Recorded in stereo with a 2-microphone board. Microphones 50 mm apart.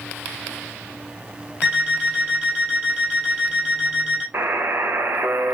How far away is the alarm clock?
About 2.5 m.